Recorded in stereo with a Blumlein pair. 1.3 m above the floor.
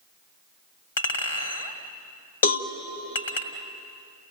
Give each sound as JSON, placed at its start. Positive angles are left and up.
{"t": 1.0, "sound": "a clink", "azimuth_deg": 65, "distance_m": 2.0}
{"t": 2.4, "sound": "a cowbell", "azimuth_deg": 65, "distance_m": 1.3}